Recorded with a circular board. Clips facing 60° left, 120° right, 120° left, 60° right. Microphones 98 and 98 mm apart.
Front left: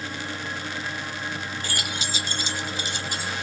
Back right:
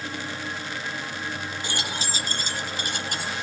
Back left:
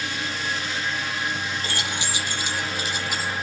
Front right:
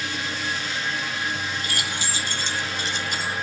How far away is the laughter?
I don't hear laughter.